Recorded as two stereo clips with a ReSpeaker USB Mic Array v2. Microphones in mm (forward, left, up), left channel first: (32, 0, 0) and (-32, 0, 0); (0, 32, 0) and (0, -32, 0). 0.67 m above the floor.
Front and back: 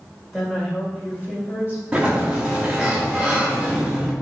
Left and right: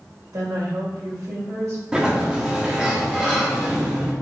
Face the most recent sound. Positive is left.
turn(degrees=-140)